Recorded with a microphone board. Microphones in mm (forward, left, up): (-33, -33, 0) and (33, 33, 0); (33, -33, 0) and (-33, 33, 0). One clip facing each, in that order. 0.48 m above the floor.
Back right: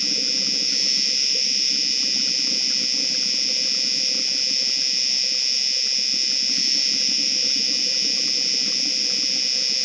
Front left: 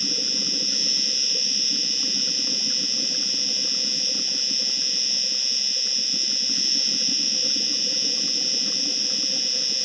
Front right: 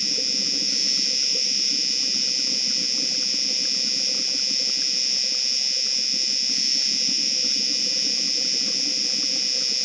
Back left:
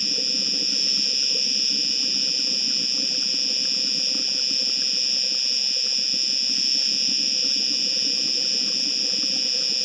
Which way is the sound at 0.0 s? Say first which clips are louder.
Even, even; 95° left.